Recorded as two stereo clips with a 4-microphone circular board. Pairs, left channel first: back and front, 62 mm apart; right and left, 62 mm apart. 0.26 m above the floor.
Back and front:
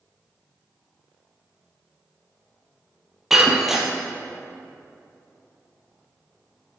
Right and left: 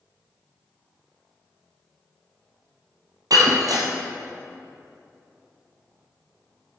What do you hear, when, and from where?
3.3 s breaking glass: 85° left, 1.3 m